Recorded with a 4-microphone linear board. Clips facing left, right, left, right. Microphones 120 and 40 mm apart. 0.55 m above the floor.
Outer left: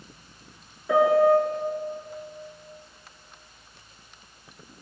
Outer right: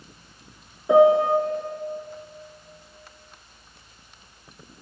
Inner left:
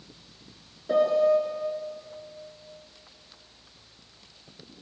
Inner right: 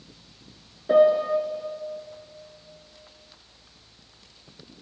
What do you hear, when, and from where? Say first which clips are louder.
0.9 s a piano: outer right 3 dB, inner right 3 dB; 20° right (ahead or behind), 2 m